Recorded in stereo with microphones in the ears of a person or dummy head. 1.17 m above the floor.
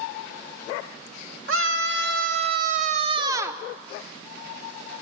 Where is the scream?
65° right (ahead or behind), 1.3 m; by 3.6 s centre (ahead or behind), 0.6 m.